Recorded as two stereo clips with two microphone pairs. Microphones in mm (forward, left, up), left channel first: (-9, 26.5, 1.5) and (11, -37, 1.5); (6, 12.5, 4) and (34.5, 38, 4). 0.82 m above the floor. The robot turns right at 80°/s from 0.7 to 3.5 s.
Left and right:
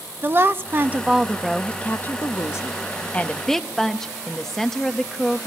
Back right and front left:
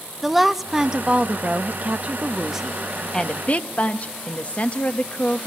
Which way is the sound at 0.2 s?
35° right.